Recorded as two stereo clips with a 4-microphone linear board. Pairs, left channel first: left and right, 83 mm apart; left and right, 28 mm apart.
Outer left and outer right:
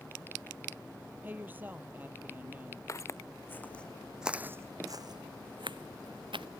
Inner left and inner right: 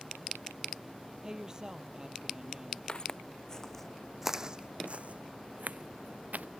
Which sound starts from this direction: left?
Footsteps, at 2.9 s.